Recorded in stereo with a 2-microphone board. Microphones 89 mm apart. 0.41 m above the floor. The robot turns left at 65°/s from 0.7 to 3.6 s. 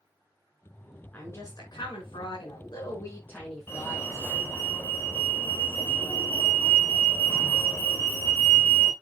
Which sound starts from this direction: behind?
A woman speaking, at 1.1 s.